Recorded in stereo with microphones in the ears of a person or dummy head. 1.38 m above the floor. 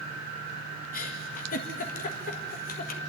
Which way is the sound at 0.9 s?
45° left (ahead or behind).